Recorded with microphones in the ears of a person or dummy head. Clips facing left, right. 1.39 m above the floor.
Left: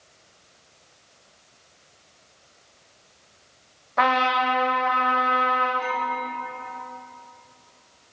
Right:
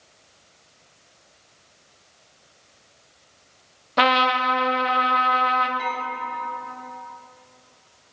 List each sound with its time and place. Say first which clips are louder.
4.0 s a trumpet: right 1 dB; 45° right (ahead or behind), 1.0 m
5.8 s dishes clattering: left 2 dB; 50° right (ahead or behind), 3.5 m